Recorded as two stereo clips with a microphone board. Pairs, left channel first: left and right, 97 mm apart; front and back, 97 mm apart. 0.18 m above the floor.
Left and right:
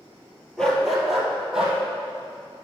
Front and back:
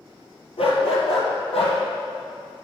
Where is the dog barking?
5° left, 1.8 m; by 1.8 s 10° right, 2.5 m.